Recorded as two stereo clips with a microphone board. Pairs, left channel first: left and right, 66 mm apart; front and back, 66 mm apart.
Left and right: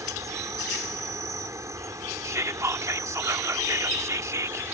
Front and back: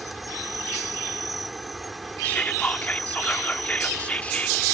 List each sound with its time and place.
0.0 s an insect: 90° right
2.2 s whispering: 65° right